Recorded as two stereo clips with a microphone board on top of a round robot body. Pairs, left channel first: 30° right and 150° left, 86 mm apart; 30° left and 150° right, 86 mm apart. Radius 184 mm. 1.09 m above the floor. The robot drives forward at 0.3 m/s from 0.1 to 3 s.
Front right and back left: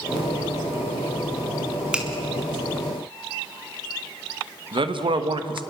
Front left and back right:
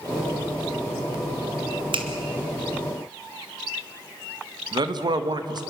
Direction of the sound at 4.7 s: 175° left.